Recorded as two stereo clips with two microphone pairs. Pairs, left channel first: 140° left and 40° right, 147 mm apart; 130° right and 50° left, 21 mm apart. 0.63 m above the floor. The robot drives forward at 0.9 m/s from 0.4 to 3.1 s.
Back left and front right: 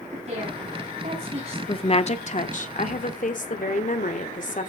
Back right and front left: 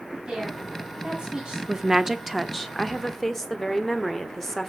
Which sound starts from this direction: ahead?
A woman speaking, at 0.1 s.